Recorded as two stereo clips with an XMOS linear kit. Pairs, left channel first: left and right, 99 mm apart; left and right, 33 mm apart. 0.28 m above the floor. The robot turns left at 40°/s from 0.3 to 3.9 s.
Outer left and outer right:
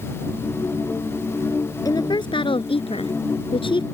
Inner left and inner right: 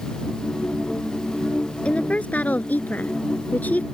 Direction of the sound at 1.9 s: 140° left.